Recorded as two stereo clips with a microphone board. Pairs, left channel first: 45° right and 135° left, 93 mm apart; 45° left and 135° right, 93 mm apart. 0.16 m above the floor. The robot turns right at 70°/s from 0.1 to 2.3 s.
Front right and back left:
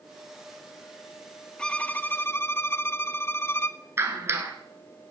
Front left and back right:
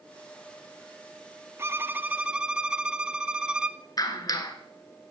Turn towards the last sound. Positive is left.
turn(degrees=80)